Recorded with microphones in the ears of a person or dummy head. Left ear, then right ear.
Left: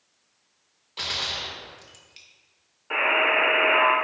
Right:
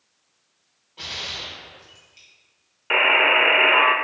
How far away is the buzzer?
About 0.9 m.